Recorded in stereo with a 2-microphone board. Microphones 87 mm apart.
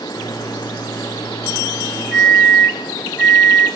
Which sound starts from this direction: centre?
A microwave, at 0.1 s.